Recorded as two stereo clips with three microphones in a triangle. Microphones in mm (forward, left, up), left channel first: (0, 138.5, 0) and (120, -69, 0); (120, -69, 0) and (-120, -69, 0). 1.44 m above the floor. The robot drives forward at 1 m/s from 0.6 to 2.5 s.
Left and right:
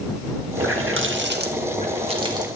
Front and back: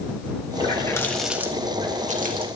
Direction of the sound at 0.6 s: 65° right.